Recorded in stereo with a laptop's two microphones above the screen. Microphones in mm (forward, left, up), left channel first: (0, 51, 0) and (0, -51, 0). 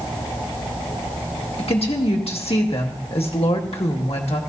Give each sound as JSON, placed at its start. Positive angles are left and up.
{"t": 1.6, "sound": "a woman speaking", "side_deg": 70, "distance_m": 1.7}